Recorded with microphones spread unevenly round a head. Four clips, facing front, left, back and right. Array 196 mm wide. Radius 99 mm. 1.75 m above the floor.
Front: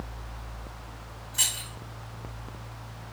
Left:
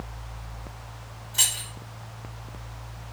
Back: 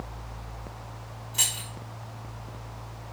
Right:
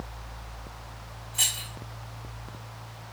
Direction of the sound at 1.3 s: 140° left.